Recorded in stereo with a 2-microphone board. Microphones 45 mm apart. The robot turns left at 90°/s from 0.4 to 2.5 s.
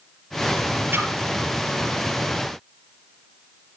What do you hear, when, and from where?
0.9 s a splash: 70° right (ahead or behind), 4.5 m; by 1.1 s 80° right, 4.5 m